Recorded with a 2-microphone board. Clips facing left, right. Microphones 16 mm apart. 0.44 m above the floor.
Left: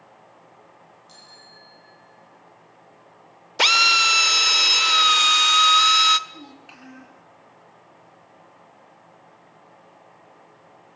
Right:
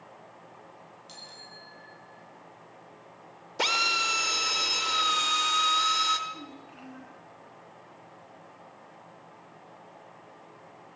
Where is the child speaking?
70° left (ahead or behind), 7 m.